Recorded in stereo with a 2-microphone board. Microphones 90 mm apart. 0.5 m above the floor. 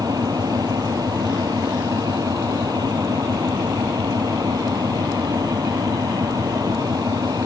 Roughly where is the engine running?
Right.